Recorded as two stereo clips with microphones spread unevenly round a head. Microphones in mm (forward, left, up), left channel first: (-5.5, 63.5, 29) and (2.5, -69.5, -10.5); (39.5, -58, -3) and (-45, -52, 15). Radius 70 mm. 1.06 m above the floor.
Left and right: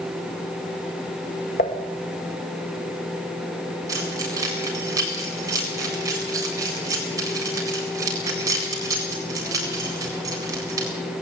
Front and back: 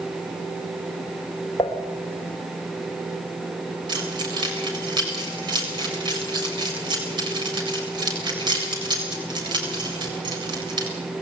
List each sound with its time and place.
1.6 s dishes clattering: 65° left, 2 m
3.9 s keys jangling: 155° right, 7.5 m